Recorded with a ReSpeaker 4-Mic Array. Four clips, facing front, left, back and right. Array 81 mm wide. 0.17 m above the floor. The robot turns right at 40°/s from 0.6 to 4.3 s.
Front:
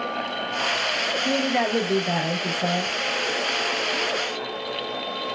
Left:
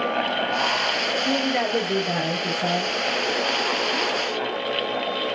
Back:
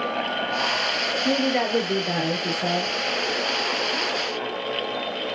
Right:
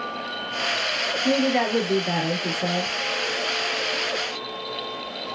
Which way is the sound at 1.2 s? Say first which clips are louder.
Right 4 dB, back 1 dB; 80° right.